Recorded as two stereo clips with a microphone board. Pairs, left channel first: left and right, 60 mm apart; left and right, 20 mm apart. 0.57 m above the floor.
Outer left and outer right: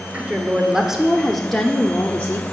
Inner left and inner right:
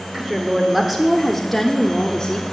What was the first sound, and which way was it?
A woman speaking, 20° right (ahead or behind).